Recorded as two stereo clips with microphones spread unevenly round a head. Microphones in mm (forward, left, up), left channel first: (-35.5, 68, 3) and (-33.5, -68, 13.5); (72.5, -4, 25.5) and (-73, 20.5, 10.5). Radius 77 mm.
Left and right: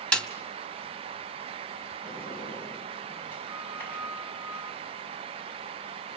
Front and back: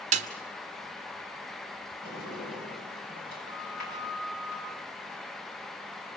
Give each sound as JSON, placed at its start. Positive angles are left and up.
{"t": 0.1, "sound": "a snare drum", "azimuth_deg": 175, "distance_m": 1.1}
{"t": 2.0, "sound": "a sliding door", "azimuth_deg": 15, "distance_m": 5.5}